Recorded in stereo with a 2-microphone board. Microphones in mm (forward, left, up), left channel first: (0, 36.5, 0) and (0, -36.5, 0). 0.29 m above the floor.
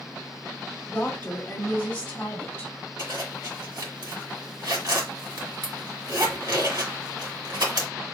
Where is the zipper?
60° right (ahead or behind), 1.7 m.